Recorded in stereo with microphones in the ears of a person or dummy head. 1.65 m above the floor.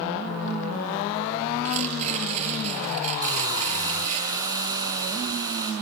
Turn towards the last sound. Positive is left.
turn(degrees=-15)  # may be behind; listen again after turning